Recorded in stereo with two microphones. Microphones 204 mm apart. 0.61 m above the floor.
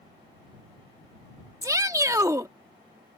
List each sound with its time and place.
1.6 s a shout: 15° right (ahead or behind)